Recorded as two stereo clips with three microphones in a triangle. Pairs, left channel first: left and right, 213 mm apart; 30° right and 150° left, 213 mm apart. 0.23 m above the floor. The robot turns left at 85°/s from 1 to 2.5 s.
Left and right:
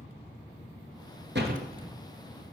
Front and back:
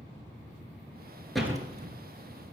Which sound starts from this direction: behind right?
A door slam, at 1.4 s.